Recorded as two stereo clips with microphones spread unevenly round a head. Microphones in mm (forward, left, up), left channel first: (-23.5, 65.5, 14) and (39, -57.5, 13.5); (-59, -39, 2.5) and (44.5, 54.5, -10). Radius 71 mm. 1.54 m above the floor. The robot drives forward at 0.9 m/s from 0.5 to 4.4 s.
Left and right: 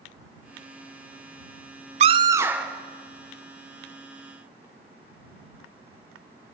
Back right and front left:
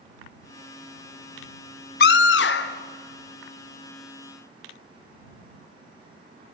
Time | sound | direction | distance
2.0 | a scream | 110° right | 0.5 m